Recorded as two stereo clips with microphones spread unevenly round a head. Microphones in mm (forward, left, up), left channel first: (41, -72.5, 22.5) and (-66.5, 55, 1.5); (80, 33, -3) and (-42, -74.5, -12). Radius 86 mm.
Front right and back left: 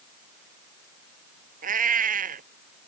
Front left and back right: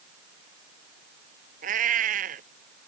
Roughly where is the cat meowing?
Behind.